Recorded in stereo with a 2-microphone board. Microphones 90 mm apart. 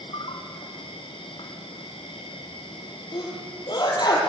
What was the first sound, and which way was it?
An insect, 75° left (ahead or behind).